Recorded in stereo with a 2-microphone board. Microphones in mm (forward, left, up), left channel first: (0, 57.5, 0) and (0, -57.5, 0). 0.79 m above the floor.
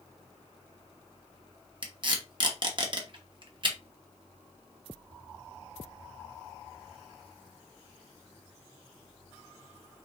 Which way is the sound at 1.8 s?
40° right (ahead or behind).